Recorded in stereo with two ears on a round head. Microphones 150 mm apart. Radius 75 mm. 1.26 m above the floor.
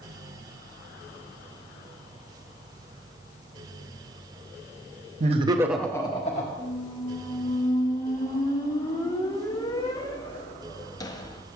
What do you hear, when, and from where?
5.2 s laughter: 45° right (ahead or behind), 1.1 m; by 6.5 s 45° left (ahead or behind), 1.2 m
6.6 s a squeak: 20° left (ahead or behind), 0.6 m